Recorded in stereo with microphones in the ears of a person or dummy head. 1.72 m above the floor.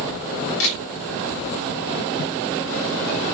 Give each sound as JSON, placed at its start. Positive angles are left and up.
{"t": 0.6, "sound": "a camera shutter", "side_deg": 65, "distance_m": 1.9}